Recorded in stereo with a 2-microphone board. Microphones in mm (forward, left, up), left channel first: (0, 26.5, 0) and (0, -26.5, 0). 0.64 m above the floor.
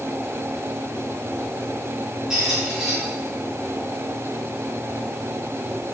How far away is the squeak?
About 3 m.